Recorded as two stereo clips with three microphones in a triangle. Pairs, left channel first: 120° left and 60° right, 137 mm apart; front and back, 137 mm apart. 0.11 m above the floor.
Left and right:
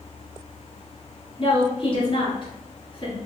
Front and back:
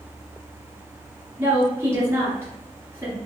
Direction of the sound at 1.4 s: 115° left.